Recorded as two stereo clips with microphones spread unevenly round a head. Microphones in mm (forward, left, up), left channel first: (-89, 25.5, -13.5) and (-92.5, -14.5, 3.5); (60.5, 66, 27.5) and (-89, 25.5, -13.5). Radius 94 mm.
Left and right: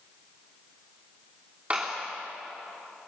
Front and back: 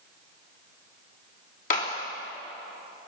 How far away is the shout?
I don't hear a shout.